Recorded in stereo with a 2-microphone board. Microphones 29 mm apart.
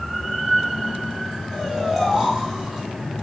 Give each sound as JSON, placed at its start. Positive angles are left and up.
{"t": 1.5, "sound": "snoring", "side_deg": -15, "distance_m": 4.0}